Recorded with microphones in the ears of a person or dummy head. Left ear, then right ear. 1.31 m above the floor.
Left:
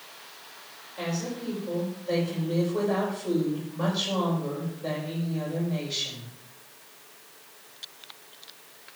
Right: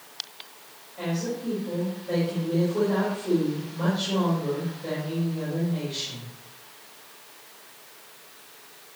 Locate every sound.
1.0 s a woman speaking: 30° left (ahead or behind), 5 m